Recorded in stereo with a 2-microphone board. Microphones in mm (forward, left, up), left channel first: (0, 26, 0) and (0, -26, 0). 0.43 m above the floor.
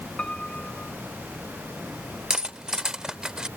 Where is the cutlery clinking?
15° right (ahead or behind).